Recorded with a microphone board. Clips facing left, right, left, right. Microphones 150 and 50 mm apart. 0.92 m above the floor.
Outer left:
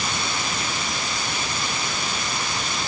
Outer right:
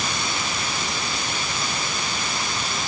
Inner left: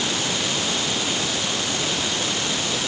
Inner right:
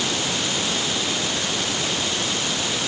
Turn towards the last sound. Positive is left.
No sound to turn to.